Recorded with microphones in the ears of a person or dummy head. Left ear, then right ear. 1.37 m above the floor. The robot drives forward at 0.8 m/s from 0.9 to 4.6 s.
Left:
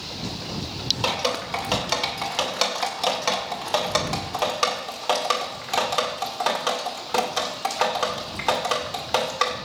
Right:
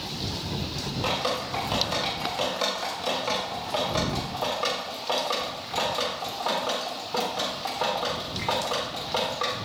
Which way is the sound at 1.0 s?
40° left (ahead or behind).